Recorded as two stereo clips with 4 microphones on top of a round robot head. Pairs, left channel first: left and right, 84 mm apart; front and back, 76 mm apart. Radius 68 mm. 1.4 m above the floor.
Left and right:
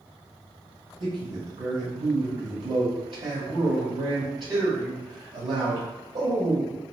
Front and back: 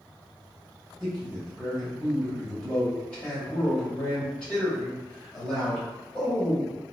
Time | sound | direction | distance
1.0 | a man speaking | 75° right | 1.8 m